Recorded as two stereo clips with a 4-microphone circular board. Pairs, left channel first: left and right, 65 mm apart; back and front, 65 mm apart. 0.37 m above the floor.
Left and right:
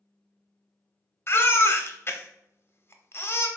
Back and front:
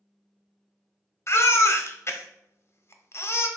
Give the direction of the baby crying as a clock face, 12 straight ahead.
7 o'clock.